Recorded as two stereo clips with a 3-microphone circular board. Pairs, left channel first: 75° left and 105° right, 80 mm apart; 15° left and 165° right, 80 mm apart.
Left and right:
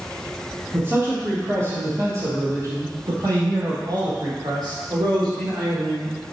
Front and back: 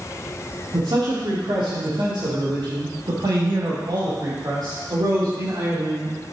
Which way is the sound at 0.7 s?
165° right.